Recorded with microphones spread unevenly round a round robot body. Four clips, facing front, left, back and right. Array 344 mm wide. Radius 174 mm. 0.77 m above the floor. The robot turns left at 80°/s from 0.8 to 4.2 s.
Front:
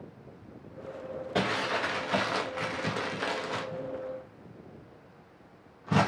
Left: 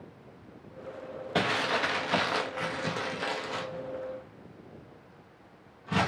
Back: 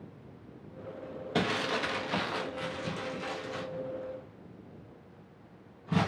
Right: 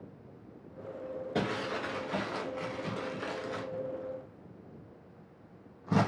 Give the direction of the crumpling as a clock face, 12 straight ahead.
6 o'clock.